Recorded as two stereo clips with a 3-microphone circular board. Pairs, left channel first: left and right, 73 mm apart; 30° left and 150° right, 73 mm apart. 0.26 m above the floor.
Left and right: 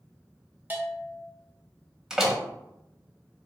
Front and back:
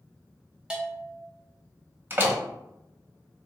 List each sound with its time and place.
0.7 s a bell: 90° right, 0.7 m
2.1 s a door slam: 165° right, 0.8 m